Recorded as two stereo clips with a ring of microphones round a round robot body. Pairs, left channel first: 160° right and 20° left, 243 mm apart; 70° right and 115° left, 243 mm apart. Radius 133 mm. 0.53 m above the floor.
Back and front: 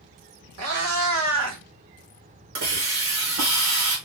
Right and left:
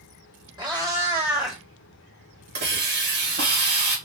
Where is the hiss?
60° left, 2.5 m.